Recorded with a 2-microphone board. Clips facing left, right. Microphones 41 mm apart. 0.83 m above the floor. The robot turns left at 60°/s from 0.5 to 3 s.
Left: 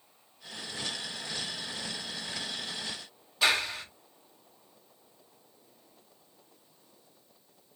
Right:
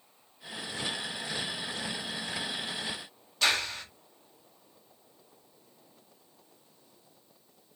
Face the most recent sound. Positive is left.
turn(degrees=10)  # may be behind; listen again after turning